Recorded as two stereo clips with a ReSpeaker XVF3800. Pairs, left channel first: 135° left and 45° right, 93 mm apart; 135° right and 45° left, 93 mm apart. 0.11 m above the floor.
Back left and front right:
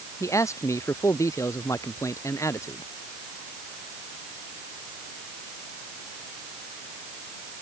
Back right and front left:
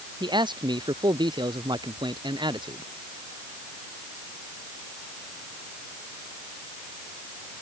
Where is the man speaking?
80° left.